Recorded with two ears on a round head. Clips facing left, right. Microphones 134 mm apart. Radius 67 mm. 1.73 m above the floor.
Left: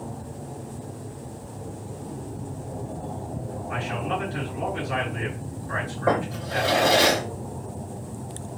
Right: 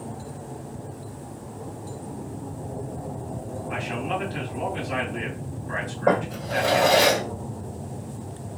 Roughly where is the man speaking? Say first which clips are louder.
Even; right.